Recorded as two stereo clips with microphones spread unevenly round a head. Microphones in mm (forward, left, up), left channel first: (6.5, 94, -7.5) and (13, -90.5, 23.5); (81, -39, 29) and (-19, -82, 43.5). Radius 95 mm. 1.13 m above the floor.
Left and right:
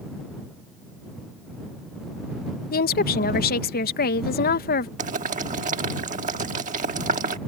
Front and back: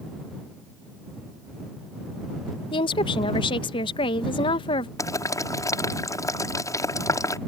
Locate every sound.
2.7 s a woman speaking: 65° left
5.0 s boiling: 35° right